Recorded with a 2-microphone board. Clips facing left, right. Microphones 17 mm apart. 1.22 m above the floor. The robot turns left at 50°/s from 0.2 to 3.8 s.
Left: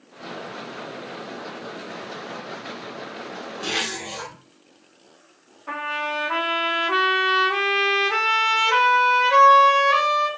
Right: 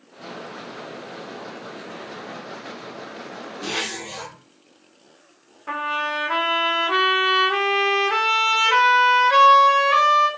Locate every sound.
3.6 s a zipper: 15° left (ahead or behind), 1.0 m; by 4.3 s 20° left (ahead or behind), 1.0 m
5.7 s a trumpet: 25° right (ahead or behind), 0.7 m